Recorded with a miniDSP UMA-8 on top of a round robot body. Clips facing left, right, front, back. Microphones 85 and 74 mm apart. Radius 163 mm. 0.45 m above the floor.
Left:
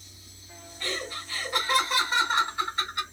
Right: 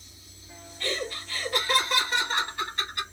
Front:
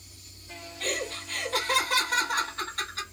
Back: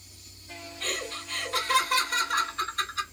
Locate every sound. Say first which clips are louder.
0.8 s laughter: right 2 dB, front 3 dB; 10° left, 2 m